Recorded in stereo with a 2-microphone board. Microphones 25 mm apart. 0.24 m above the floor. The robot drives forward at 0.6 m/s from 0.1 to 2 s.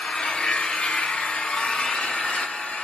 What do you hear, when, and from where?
0.0 s an engine running: 50° left (ahead or behind), 0.9 m; by 2.8 s 45° left (ahead or behind), 1.0 m